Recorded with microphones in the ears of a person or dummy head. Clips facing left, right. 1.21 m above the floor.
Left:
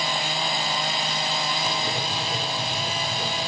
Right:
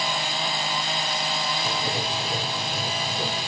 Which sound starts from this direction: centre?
Writing, at 1.6 s.